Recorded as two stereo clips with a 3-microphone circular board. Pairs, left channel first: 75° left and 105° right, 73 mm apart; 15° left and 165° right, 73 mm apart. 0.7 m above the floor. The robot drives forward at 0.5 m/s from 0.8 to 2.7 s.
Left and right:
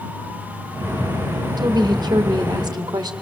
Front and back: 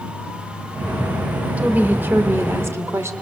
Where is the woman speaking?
95° right, 1.8 m; by 3.1 s 115° right, 1.9 m.